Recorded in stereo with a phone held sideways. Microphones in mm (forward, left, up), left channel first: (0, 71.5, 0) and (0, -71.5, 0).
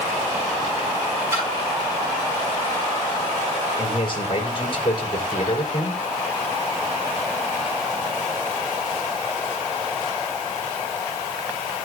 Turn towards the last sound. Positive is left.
turn(degrees=40)  # may be behind; listen again after turning